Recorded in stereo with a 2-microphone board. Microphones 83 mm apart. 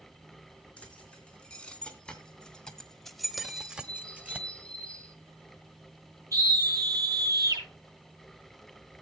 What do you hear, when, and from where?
0.8 s keys jangling: 15° left (ahead or behind), 3.5 m; by 4.4 s 20° right (ahead or behind), 1.2 m
3.4 s a bird: 15° left (ahead or behind), 3 m
6.3 s a scream: 45° right (ahead or behind), 7.5 m